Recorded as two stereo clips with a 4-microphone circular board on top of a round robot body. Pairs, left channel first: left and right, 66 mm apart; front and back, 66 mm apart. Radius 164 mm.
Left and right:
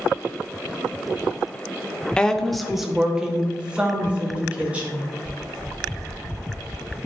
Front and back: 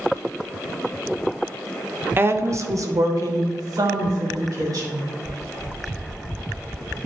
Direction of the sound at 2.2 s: 155° left.